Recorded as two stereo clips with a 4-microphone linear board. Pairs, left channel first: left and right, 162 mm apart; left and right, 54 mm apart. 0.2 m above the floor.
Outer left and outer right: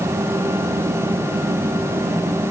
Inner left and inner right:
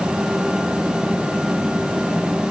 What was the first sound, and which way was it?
Only background noise.